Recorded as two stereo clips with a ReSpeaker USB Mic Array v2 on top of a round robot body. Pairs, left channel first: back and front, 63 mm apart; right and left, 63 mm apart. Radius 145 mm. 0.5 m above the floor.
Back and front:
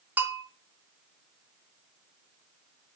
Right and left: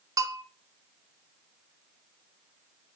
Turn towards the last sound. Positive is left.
turn(degrees=65)